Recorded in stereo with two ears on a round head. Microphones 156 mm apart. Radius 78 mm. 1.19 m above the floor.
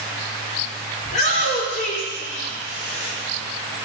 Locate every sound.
1.1 s a shout: 40° left (ahead or behind), 3 m; by 3.1 s 60° left (ahead or behind), 4 m